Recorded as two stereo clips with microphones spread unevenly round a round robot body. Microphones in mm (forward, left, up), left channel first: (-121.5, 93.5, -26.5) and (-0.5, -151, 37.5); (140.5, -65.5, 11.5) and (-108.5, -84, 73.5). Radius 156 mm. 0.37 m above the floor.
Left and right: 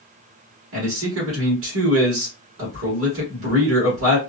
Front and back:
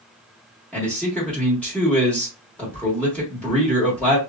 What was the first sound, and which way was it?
A man speaking, 55° right.